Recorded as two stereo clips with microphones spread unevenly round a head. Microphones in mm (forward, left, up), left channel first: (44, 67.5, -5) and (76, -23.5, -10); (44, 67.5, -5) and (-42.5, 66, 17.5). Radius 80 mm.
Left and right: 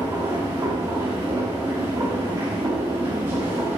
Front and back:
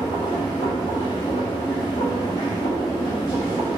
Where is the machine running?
10° right, 1.1 m.